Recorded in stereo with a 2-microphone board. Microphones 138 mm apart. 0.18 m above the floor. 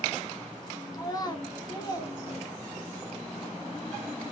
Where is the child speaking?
30° left (ahead or behind), 1.0 m.